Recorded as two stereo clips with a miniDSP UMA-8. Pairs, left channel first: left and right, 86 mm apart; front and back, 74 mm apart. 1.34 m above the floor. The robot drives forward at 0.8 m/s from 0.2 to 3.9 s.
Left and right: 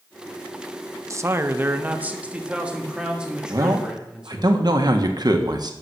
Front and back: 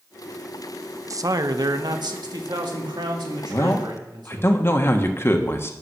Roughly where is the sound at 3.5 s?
Ahead right.